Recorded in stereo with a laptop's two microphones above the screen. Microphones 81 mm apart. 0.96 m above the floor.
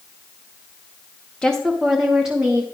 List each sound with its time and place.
1.4 s a woman speaking: 10° left (ahead or behind), 0.9 m; by 2.6 s 15° right (ahead or behind), 1.3 m